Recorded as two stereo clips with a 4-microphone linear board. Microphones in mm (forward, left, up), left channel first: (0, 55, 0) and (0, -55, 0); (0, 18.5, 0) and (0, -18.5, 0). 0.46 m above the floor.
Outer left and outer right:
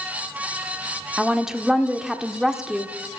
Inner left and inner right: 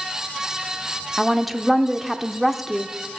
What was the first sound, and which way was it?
A woman speaking, 5° right (ahead or behind).